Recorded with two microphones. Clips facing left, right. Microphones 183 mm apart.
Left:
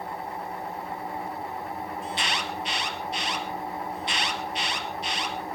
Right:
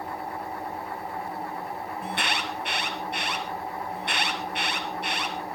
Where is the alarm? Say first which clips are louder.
Right 3 dB; 60° right (ahead or behind), 2 m.